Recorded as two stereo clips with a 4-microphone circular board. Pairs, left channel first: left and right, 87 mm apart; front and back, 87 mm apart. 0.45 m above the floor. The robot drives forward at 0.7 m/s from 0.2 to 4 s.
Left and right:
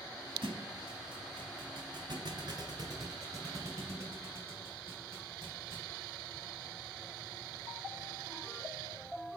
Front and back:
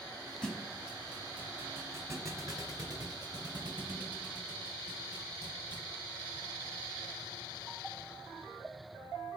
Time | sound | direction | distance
0.4 | a thud | 80° right | 1.5 m